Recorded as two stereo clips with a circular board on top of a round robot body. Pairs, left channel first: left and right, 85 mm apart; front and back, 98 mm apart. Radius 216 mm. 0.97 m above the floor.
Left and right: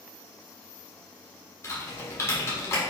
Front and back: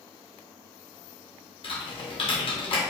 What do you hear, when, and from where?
1.6 s typing on a keyboard: 30° left, 1.3 m